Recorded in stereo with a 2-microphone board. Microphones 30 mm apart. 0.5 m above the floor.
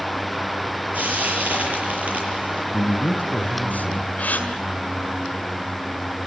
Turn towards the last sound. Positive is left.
turn(degrees=55)  # may be behind; listen again after turning